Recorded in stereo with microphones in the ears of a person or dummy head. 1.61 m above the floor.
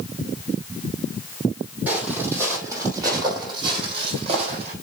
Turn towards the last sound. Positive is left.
turn(degrees=-40)  # may be behind; listen again after turning